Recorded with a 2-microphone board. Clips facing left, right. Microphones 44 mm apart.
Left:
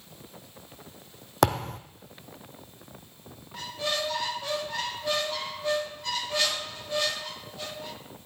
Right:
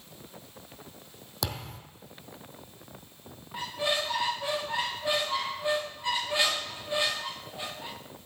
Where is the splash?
I don't hear a splash.